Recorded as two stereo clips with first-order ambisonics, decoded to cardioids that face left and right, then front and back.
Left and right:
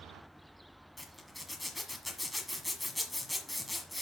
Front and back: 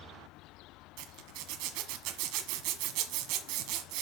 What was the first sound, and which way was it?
A zipper, 175° left.